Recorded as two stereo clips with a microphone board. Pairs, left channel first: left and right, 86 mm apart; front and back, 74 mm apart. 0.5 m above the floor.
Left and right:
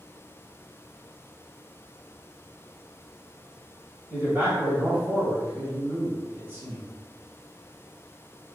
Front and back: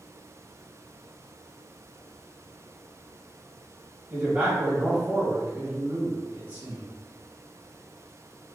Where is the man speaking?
130° right, 1.2 m.